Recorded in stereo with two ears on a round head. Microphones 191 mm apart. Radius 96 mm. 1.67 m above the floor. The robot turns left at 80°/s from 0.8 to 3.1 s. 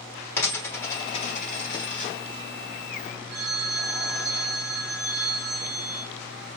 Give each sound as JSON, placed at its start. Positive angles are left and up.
{"t": 0.4, "sound": "a dropped coin", "side_deg": 10, "distance_m": 1.6}
{"t": 3.3, "sound": "a phone ringing", "side_deg": -15, "distance_m": 2.5}